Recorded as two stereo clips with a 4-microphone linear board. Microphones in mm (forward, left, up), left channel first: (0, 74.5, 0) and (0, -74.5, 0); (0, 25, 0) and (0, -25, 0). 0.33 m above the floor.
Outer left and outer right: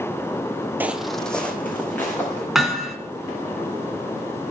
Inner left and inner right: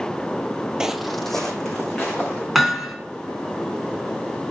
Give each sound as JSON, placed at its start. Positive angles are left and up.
{"t": 0.8, "sound": "footsteps", "side_deg": -15, "distance_m": 0.5}
{"t": 2.5, "sound": "hammering", "side_deg": 0, "distance_m": 2.0}